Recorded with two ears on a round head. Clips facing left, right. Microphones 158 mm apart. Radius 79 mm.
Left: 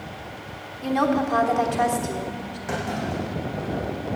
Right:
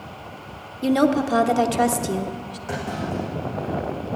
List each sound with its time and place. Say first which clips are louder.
0.8 s a woman speaking: right 4 dB; 40° right (ahead or behind), 0.9 m
2.7 s a clunk: even; 10° left (ahead or behind), 7 m